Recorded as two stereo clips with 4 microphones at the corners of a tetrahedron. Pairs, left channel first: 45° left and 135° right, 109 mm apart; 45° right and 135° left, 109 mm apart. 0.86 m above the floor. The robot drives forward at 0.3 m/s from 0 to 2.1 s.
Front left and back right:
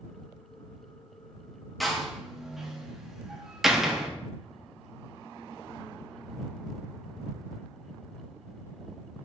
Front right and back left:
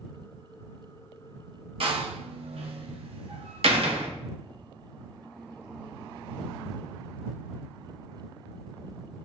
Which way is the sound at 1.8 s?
135° left.